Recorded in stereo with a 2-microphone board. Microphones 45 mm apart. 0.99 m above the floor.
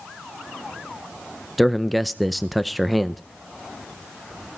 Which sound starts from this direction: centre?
A man speaking, at 1.6 s.